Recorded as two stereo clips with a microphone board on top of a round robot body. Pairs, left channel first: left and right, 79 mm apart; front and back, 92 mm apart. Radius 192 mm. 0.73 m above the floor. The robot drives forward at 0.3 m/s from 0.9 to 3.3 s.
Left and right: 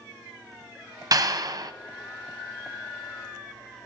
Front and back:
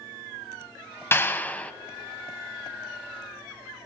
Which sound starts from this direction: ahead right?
A clap, at 1.1 s.